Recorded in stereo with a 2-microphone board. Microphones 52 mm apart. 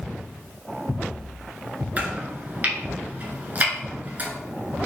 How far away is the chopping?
About 1.0 m.